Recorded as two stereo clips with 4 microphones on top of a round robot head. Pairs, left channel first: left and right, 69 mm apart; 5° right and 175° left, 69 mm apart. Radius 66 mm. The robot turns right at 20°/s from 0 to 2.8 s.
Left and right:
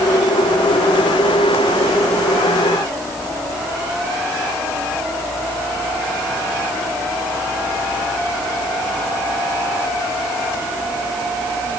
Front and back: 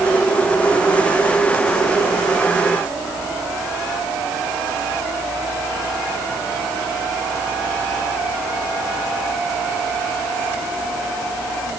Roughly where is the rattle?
No rattle in this recording.